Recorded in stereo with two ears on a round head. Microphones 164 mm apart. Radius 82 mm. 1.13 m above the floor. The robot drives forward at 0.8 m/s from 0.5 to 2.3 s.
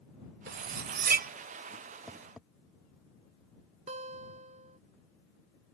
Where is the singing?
No singing in this recording.